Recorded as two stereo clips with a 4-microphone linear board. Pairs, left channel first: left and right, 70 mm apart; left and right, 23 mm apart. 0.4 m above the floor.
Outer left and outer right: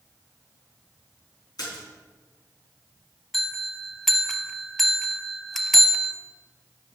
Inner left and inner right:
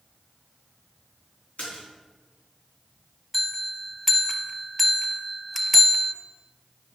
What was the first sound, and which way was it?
A splash, 70° left (ahead or behind).